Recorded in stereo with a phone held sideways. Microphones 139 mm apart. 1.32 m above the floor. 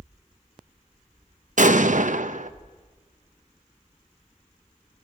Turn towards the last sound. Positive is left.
turn(degrees=-65)  # may be behind; listen again after turning